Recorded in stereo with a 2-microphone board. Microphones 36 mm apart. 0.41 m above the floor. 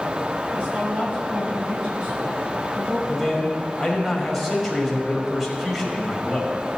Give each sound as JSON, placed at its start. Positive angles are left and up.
{"t": 0.5, "sound": "a woman speaking", "side_deg": -40, "distance_m": 3.0}
{"t": 3.1, "sound": "a man speaking", "side_deg": 0, "distance_m": 2.5}